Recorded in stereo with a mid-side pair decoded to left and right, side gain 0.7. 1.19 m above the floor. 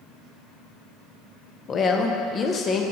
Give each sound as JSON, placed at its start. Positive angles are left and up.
{"t": 1.7, "sound": "a woman speaking", "azimuth_deg": 30, "distance_m": 0.8}